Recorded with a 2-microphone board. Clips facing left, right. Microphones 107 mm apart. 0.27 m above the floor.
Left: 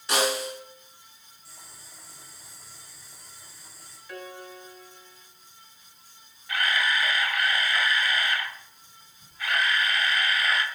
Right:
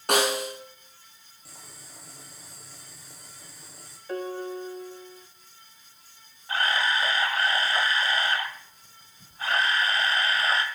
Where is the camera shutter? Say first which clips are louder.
Right 1 dB; 30° right (ahead or behind), 1.3 m.